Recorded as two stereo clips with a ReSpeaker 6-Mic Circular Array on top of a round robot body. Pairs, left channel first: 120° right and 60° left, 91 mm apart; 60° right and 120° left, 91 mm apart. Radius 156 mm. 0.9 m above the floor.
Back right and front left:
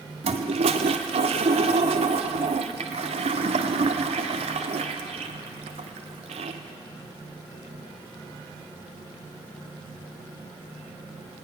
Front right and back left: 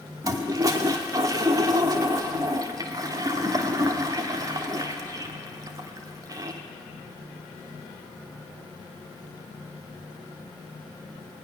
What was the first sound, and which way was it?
A toilet flushing, 65° left.